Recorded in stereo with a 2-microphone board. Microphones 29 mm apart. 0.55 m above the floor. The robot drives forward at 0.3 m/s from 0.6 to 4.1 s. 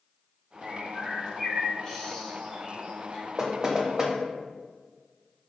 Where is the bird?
15° left (ahead or behind), 1.3 m; by 3.3 s 10° left (ahead or behind), 2.0 m.